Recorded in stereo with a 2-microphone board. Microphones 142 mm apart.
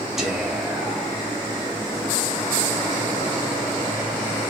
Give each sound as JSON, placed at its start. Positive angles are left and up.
{"t": 0.2, "sound": "whispering", "side_deg": 0, "distance_m": 0.8}